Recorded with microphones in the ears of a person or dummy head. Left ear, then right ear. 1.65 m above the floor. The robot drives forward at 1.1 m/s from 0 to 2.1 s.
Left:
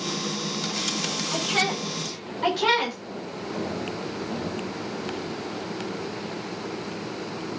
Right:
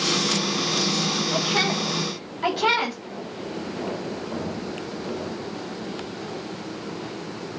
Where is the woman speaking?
5° left (ahead or behind), 4.5 m.